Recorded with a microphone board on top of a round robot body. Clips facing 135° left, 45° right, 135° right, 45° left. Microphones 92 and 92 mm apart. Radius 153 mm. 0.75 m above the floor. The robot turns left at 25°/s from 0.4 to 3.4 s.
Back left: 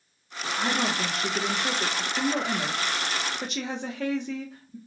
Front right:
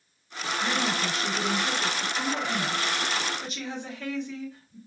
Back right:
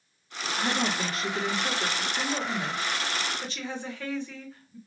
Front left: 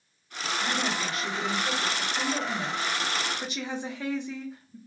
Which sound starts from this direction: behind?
A woman speaking, at 0.6 s.